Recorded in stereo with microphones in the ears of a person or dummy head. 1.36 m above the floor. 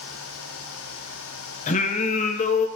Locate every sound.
1.7 s singing: 45° left (ahead or behind), 0.6 m